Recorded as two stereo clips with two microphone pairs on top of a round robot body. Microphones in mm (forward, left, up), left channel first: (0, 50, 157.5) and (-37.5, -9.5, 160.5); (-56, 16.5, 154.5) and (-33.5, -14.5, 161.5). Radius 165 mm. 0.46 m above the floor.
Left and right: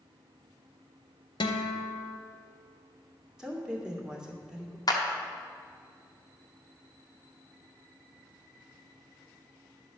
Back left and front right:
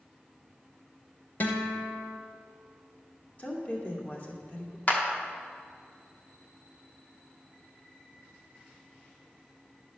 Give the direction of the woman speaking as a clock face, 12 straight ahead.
7 o'clock.